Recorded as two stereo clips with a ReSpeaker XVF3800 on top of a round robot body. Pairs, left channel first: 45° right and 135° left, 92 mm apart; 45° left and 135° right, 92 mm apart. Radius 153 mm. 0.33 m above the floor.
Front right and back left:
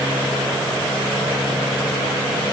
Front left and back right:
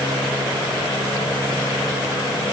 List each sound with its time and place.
Only background noise.